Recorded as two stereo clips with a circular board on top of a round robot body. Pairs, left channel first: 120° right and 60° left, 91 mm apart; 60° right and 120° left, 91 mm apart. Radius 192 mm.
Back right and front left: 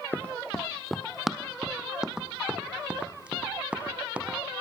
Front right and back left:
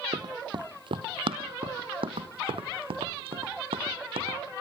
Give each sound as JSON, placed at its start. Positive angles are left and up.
{"t": 0.1, "sound": "running footsteps", "azimuth_deg": 165, "distance_m": 0.8}